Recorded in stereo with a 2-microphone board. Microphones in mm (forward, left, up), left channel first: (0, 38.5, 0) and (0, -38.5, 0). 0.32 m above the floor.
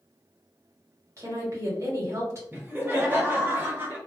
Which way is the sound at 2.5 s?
30° right (ahead or behind).